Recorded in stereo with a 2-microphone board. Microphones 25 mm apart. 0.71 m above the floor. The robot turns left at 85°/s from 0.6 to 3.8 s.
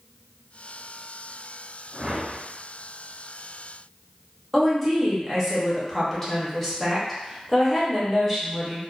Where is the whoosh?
15° right, 0.7 m; by 2.4 s 60° right, 0.7 m.